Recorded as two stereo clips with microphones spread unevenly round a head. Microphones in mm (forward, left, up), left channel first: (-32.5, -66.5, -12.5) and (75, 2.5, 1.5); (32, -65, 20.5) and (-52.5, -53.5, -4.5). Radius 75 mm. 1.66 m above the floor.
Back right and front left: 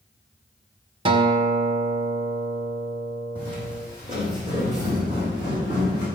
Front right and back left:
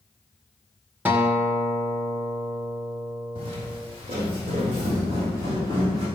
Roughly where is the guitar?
Left.